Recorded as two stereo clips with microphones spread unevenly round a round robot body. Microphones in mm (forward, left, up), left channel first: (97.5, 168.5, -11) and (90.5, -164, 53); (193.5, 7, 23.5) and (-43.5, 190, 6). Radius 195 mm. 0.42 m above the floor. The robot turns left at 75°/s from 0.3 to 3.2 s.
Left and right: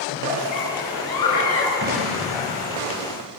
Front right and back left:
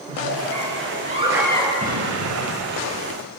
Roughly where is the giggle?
Behind left.